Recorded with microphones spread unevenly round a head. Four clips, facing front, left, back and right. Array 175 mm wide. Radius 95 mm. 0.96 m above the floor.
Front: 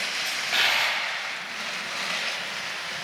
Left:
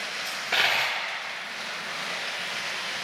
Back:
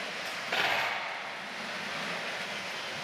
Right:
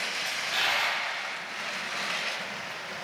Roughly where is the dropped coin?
Behind left.